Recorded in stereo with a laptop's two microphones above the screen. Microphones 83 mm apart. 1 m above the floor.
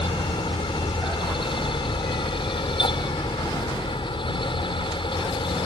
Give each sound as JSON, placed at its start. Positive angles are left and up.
{"t": 0.0, "sound": "a fan", "side_deg": 75}